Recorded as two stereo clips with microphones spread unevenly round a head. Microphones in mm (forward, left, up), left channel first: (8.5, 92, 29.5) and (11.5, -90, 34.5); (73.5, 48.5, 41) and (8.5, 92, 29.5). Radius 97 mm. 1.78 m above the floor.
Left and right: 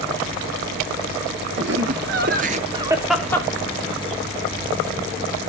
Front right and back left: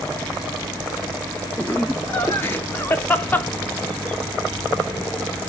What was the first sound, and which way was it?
Laughter, 110° right.